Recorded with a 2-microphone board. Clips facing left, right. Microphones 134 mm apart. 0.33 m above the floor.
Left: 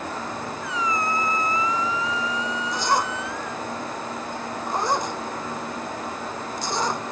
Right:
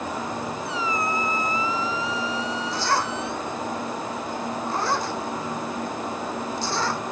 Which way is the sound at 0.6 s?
30° right (ahead or behind).